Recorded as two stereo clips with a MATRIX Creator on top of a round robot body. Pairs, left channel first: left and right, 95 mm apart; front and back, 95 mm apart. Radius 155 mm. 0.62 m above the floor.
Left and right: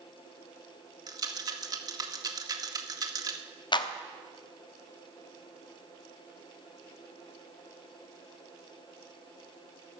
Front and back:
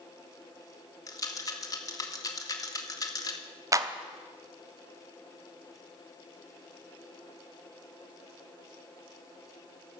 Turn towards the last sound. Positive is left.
turn(degrees=125)